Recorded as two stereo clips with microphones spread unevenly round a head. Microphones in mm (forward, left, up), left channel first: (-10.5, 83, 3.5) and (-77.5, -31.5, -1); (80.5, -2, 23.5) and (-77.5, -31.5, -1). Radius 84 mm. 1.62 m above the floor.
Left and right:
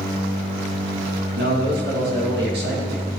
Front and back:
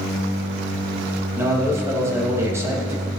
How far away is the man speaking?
About 2.5 m.